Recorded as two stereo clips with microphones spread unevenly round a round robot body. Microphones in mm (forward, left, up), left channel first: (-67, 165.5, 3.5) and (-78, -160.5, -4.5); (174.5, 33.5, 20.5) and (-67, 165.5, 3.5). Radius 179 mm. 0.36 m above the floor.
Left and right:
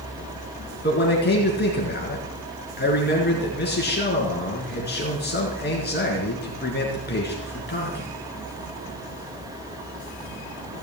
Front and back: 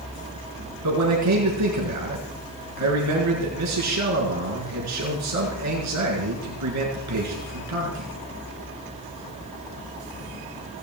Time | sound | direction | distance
0.8 | a man speaking | 145° left | 4.5 m